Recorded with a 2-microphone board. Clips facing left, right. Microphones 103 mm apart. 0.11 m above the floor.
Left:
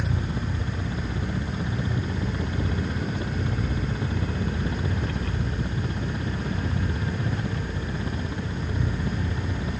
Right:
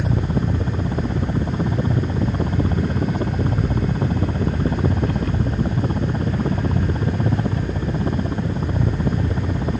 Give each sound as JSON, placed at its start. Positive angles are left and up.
{"t": 0.0, "sound": "a helicopter", "side_deg": -40}